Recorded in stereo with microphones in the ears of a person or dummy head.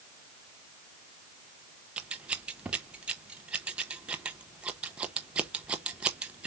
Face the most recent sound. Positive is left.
turn(degrees=-5)  # may be behind; listen again after turning